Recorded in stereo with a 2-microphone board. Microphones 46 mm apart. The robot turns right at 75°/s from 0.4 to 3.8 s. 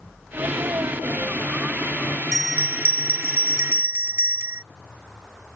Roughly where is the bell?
Behind.